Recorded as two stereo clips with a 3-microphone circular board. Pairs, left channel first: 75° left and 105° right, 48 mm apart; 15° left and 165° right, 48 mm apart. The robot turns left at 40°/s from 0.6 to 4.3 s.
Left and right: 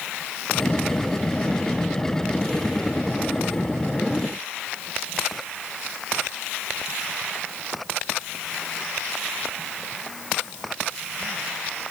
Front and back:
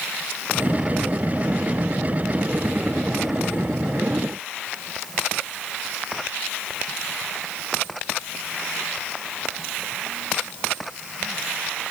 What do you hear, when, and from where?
Only background noise.